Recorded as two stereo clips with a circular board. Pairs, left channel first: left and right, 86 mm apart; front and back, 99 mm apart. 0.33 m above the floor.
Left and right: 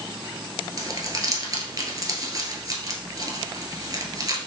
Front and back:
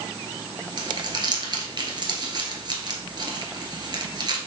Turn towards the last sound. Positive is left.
turn(degrees=-135)